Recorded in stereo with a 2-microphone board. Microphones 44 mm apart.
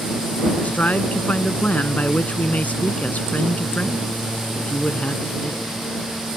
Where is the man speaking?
35° left (ahead or behind).